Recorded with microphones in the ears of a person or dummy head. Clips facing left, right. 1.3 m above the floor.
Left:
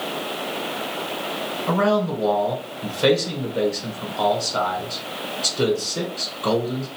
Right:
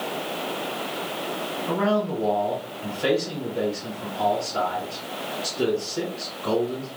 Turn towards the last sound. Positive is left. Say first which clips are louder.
# left 3 dB
turn(degrees=60)  # may be behind; listen again after turning